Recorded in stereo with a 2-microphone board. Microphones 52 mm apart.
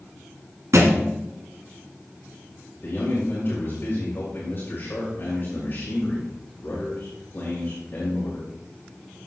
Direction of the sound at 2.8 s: 45° left (ahead or behind).